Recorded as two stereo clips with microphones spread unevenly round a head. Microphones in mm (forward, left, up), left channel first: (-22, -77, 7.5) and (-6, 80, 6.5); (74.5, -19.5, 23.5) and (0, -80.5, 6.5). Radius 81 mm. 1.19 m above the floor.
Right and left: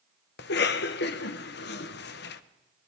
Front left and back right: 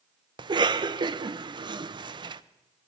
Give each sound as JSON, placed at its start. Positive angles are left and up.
{"t": 0.4, "sound": "a cough", "azimuth_deg": -110, "distance_m": 0.8}